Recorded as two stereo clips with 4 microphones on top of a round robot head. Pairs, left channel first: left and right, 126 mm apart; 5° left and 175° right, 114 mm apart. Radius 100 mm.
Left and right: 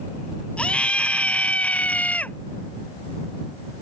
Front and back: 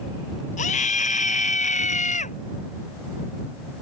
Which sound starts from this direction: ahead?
A scream, at 0.6 s.